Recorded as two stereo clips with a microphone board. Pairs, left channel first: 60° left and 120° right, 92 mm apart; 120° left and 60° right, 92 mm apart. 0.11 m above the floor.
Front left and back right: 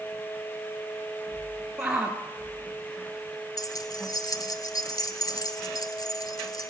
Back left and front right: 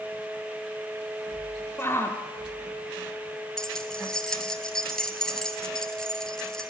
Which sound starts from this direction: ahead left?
Keys jangling, at 3.6 s.